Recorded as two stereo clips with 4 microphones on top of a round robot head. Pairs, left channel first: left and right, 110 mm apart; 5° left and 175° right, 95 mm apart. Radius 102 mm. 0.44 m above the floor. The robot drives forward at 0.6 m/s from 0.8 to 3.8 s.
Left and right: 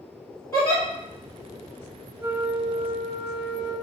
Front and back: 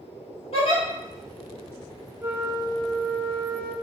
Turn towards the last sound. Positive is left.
turn(degrees=-170)